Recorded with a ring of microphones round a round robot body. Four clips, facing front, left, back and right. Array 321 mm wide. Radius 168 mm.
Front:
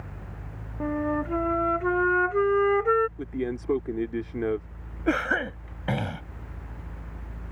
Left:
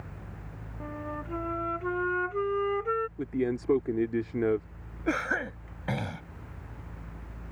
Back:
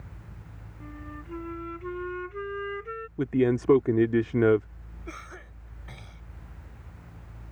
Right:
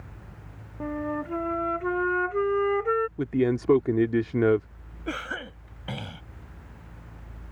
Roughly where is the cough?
Ahead.